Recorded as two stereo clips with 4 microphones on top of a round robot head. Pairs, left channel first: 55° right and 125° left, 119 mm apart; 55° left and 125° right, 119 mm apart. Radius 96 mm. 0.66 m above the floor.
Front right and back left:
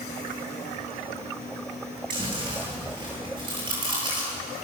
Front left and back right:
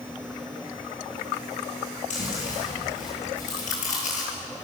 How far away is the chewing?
About 9 m.